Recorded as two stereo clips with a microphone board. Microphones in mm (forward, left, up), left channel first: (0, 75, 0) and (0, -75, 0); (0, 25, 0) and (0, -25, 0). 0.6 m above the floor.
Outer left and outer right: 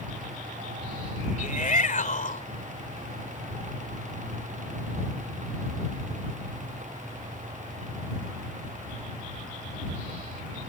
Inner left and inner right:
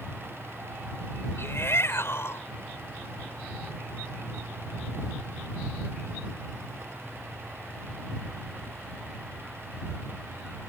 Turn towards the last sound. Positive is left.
turn(degrees=60)  # may be behind; listen again after turning